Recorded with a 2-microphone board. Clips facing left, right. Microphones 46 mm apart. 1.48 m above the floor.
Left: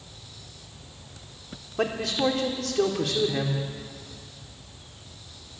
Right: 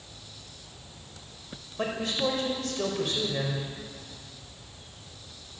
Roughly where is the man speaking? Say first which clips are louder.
Left 4 dB; left.